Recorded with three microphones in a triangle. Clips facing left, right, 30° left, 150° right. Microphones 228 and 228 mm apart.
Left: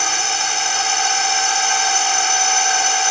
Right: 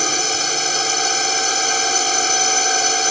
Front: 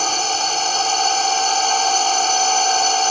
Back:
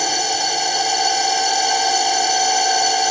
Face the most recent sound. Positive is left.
turn(degrees=-75)